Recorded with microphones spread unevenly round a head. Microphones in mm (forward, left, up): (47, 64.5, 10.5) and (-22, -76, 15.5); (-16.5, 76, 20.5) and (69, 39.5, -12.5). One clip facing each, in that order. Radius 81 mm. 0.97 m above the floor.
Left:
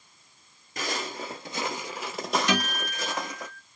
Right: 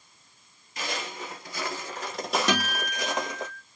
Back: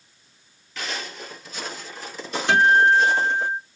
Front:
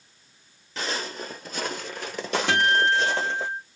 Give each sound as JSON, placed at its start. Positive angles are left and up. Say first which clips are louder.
{"t": 0.8, "sound": "footsteps", "louder": "left 2 dB, front 2 dB", "azimuth_deg": 45, "distance_m": 1.2}
{"t": 2.5, "sound": "a guitar", "louder": "even, back 7 dB", "azimuth_deg": -65, "distance_m": 1.8}